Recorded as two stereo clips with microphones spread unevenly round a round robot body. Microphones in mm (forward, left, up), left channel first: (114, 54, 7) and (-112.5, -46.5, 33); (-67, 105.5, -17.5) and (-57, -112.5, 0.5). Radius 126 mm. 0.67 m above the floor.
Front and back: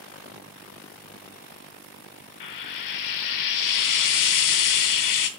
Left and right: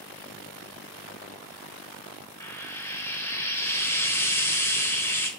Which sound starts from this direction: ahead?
Frying, at 2.4 s.